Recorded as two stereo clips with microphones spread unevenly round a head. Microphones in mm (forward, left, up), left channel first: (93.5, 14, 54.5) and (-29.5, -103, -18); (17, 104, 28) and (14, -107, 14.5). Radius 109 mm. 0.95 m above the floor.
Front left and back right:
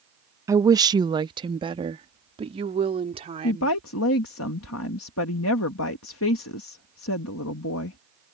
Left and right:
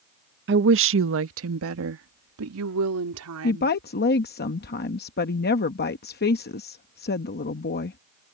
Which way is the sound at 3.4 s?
40° left.